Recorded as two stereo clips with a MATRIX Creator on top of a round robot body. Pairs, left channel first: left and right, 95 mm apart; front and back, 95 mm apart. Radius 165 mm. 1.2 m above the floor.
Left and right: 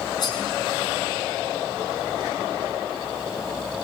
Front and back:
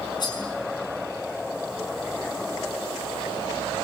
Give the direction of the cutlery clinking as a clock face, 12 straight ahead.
11 o'clock.